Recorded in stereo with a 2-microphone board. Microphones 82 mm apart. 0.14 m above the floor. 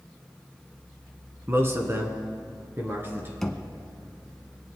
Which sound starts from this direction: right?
A man speaking, at 1.5 s.